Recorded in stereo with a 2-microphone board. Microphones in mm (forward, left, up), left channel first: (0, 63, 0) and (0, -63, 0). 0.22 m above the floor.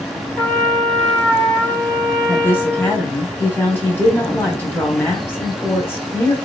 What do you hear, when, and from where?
0.4 s a trumpet: 15° left (ahead or behind), 0.8 m
2.3 s a woman speaking: 15° left (ahead or behind), 1.0 m